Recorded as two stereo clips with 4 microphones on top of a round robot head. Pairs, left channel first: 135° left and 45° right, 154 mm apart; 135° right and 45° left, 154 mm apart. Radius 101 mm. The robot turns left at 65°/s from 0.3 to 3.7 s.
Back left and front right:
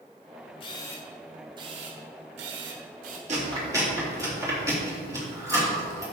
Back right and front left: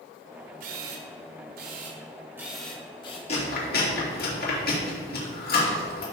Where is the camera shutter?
80° left, 1.5 m; by 3.2 s 85° right, 1.5 m.